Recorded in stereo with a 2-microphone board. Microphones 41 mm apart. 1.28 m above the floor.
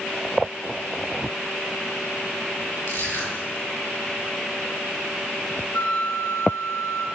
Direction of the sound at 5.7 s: 75° left (ahead or behind).